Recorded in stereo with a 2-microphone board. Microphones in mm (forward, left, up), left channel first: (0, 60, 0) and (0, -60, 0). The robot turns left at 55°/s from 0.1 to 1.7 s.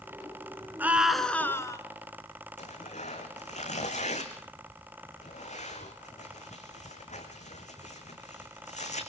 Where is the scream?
160° right, 2 m; by 1.8 s 150° left, 2 m.